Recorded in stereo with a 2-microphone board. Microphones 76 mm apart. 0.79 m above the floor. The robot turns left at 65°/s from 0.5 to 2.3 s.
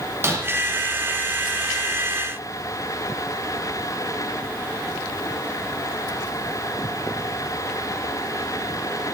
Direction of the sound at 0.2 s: 35° right (ahead or behind).